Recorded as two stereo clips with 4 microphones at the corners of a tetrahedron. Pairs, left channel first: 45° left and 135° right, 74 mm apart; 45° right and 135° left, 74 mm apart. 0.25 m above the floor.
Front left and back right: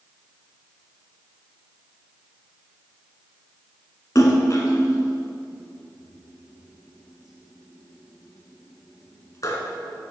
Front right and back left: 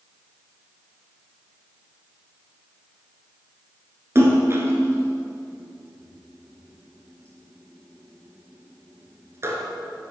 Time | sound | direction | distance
4.2 | a splash | 85° left | 2 m